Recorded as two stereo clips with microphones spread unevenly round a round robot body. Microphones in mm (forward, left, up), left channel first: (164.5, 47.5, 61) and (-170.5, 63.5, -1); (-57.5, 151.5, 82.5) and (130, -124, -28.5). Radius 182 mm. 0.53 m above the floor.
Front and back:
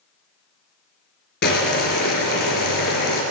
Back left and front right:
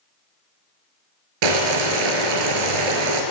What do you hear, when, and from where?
1.4 s boiling: 65° right, 2 m